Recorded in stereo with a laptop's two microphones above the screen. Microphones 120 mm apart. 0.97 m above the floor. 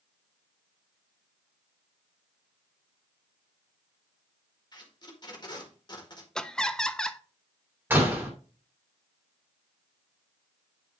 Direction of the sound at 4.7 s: 40° left (ahead or behind).